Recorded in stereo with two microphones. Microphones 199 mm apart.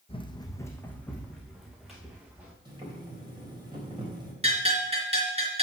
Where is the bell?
30° right (ahead or behind), 3.5 m.